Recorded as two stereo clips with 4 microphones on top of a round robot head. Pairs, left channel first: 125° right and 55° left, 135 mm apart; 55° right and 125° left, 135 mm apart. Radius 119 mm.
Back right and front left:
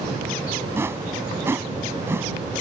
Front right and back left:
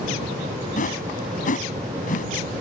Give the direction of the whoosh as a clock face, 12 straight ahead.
1 o'clock.